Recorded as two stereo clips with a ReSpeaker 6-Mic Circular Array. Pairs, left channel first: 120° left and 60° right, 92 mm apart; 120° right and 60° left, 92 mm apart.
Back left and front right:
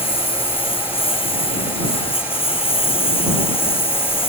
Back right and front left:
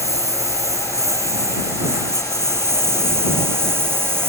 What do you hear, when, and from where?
0.0 s a lawn mower: 115° left; by 4.3 s 125° left